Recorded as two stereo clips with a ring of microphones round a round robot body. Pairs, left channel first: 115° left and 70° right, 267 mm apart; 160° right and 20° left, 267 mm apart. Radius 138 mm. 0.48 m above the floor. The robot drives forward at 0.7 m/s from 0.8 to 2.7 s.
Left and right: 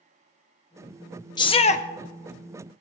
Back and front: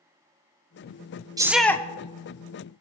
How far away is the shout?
About 0.7 m.